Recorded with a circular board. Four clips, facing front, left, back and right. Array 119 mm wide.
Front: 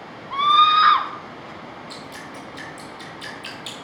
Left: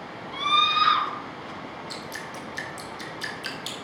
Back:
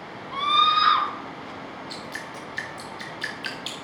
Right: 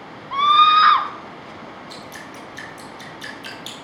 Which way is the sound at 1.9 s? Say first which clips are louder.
Even, even; 170° left.